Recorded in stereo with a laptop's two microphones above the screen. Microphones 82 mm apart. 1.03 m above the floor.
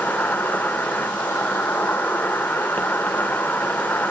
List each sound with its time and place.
0.0 s an insect: 20° left (ahead or behind), 0.7 m